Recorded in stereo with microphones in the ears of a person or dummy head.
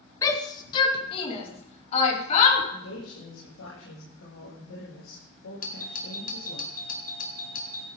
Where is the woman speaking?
85° left, 7.5 m.